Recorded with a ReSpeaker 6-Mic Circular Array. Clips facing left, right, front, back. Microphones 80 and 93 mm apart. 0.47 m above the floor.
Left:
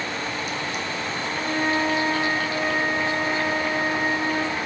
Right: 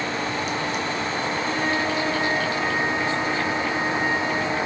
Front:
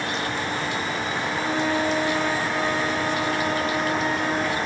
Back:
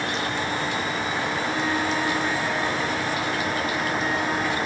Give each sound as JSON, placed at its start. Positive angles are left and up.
{"t": 1.3, "sound": "a flute", "azimuth_deg": 35, "distance_m": 4.5}